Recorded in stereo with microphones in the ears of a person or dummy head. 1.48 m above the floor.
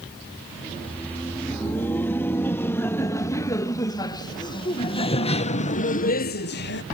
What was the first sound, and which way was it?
Laughter, 5° left (ahead or behind).